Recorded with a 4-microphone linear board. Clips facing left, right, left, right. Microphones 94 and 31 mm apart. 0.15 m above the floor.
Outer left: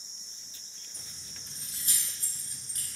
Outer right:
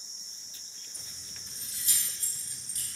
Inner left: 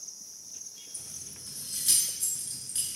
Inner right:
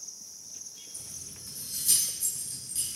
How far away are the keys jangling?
About 1.3 m.